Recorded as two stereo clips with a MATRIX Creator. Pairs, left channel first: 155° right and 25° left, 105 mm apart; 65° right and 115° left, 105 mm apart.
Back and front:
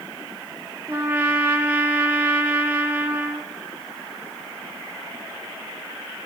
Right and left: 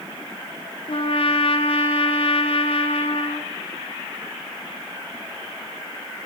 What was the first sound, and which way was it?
A trumpet, 50° right.